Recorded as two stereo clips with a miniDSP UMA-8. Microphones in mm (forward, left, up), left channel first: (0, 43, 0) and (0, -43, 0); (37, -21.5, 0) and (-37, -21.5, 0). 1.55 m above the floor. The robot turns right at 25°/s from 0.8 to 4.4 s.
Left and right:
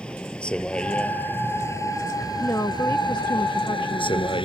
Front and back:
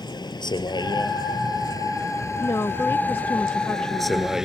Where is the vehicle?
15° left; by 4.5 s 95° left.